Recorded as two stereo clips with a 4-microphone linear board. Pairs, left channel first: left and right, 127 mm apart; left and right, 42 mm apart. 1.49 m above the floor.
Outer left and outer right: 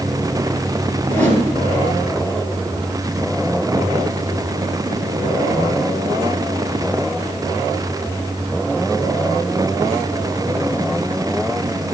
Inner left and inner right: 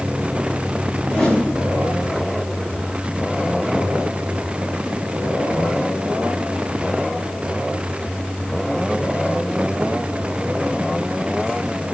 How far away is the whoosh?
About 8 m.